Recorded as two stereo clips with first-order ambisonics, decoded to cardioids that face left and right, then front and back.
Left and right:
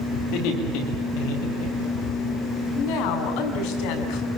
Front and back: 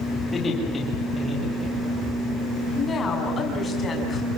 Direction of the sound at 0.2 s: 75° left.